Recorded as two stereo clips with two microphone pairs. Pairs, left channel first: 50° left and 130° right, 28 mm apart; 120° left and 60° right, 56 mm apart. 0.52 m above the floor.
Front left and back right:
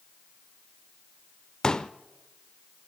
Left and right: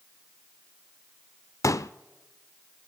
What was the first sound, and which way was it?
A pop, 110° left.